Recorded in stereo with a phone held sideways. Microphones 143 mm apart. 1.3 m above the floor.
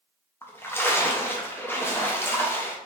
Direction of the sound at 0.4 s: 15° left (ahead or behind).